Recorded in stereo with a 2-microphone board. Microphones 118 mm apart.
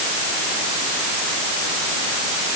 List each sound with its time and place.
Only background noise.